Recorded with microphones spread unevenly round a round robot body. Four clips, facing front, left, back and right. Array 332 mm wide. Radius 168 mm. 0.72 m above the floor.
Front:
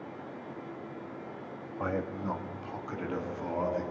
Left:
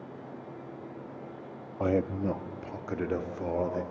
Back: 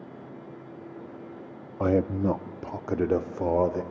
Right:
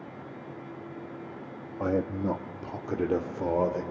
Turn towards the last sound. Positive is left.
turn(degrees=-160)